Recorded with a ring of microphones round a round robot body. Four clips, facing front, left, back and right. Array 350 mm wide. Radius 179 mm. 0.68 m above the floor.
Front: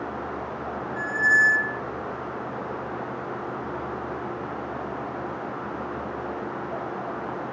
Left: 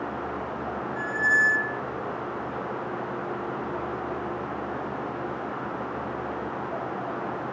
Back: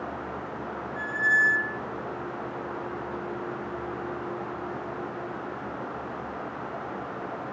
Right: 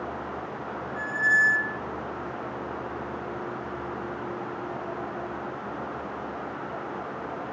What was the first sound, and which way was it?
A squeak, straight ahead.